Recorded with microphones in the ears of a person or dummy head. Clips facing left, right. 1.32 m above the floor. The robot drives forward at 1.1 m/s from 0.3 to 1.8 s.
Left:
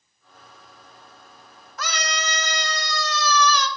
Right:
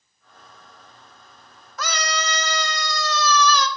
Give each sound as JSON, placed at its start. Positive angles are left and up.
{"t": 1.8, "sound": "a scream", "side_deg": -80, "distance_m": 1.1}